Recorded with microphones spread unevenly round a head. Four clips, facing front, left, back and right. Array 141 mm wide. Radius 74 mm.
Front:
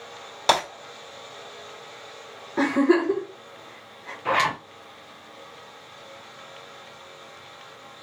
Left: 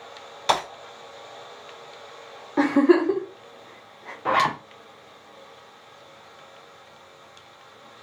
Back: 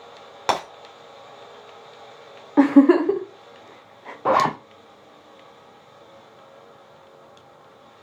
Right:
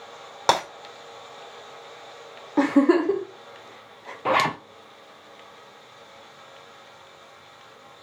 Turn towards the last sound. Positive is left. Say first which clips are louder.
# even, back 5 dB
turn(degrees=-165)